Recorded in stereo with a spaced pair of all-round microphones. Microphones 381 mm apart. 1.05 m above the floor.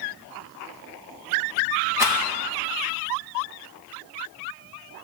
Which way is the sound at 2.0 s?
5° right (ahead or behind).